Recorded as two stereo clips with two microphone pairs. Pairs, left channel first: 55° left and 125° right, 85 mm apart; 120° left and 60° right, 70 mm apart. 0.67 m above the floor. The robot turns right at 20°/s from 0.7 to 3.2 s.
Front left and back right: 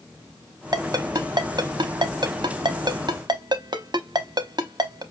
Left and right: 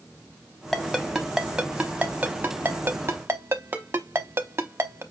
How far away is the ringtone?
About 0.8 m.